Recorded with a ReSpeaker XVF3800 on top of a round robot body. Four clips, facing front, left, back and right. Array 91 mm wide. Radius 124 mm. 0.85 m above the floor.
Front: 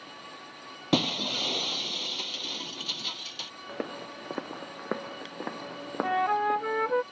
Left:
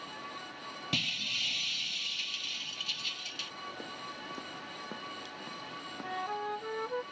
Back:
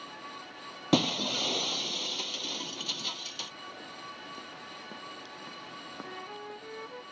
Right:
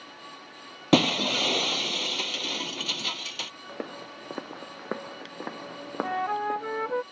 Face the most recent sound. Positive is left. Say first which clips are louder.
# right 8 dB, front 21 dB
turn(degrees=-25)